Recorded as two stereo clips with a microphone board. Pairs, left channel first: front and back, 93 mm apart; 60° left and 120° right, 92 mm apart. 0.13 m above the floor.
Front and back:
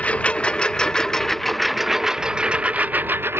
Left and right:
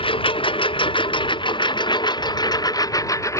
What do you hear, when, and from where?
0.0 s a lawn mower: 75° left; by 3.4 s 115° left